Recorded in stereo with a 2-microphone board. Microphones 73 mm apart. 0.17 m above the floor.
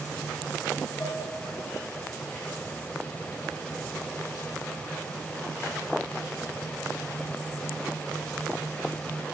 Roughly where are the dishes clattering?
Left.